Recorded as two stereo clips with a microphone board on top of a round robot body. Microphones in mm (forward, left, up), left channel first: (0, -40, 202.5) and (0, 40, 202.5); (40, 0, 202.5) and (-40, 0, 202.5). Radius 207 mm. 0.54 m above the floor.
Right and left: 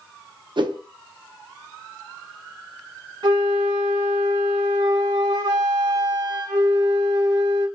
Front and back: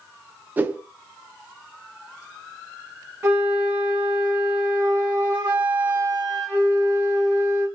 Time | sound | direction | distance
0.6 | a whoosh | 115° left | 0.6 m
3.2 | a flute | 120° left | 0.9 m